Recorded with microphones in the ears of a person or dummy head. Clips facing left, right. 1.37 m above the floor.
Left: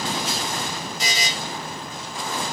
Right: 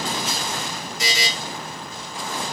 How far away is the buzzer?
About 0.9 m.